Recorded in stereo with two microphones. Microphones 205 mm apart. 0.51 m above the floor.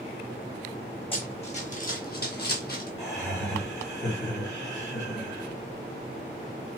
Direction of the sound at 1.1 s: 25° left (ahead or behind).